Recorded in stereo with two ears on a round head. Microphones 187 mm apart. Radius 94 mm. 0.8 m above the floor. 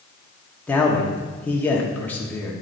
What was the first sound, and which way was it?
A man speaking, 10° left (ahead or behind).